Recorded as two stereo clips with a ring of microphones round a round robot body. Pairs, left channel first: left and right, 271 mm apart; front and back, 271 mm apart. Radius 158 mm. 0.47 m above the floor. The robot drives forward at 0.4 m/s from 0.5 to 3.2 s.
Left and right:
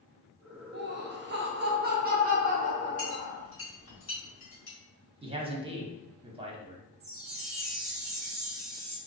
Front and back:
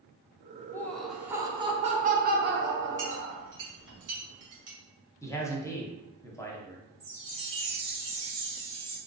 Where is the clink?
130° left, 1.7 m; by 4.8 s 135° left, 1.8 m.